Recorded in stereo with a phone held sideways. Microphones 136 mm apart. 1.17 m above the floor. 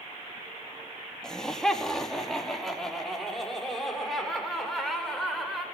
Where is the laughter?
5° left (ahead or behind), 2.5 m; by 5.6 s centre (ahead or behind), 6 m.